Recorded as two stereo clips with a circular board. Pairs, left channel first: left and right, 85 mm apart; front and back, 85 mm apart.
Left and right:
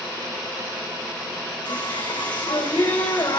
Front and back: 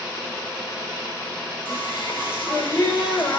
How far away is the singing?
About 7 m.